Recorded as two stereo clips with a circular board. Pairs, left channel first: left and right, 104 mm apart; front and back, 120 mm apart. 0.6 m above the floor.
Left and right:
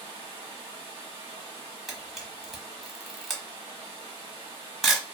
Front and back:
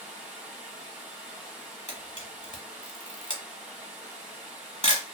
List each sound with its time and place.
0.0 s running water: 100° right, 1.5 m
1.9 s a camera shutter: straight ahead, 1.0 m